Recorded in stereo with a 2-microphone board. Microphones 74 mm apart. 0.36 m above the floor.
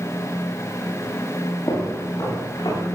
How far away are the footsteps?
About 7 m.